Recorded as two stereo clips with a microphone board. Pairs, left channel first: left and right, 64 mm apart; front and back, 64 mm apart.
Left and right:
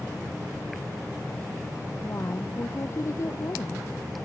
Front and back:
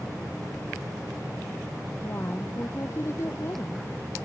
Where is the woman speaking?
45° left.